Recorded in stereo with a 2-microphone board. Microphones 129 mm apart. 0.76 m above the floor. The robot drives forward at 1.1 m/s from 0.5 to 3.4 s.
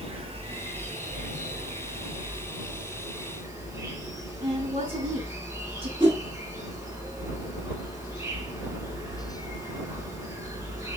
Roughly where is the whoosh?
Right.